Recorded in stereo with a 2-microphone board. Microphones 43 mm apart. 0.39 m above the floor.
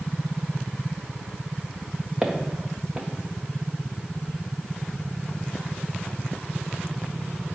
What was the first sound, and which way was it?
Footsteps, 15° right (ahead or behind).